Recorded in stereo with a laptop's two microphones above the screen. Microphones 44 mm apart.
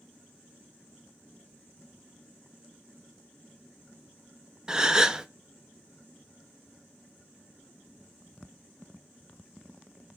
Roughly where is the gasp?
Centre.